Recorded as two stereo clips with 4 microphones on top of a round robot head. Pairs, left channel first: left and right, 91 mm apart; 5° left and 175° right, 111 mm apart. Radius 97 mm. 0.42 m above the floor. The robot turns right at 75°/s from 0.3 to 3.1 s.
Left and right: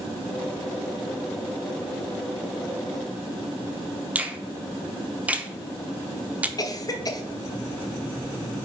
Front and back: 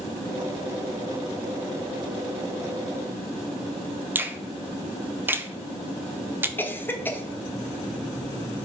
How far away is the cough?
About 1.1 m.